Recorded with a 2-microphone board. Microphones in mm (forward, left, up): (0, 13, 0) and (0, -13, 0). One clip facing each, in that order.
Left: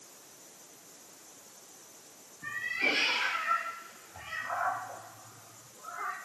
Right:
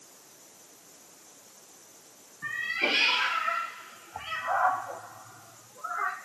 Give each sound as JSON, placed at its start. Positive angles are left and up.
{"t": 2.4, "sound": "a cat meowing", "side_deg": -40, "distance_m": 2.0}